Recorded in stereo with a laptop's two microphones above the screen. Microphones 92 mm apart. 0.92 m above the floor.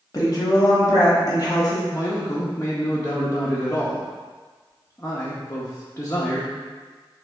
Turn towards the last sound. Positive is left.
turn(degrees=30)  # may be behind; listen again after turning